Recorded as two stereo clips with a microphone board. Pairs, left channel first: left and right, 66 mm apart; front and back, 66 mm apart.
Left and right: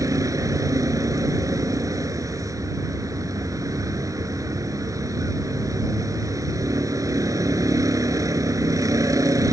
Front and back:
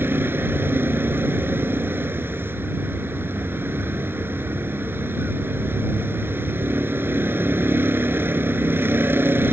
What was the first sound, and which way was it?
A vehicle, 125° right.